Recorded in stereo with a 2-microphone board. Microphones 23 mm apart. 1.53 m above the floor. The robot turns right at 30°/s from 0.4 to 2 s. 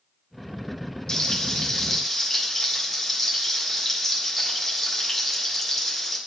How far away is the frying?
About 1.5 m.